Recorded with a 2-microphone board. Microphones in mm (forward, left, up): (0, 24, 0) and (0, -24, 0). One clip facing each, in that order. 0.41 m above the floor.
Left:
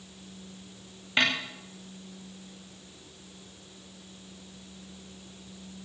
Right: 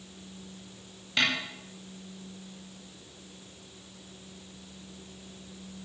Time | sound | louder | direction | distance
1.2 | a snare drum | left 2 dB | 25° left (ahead or behind) | 5.5 m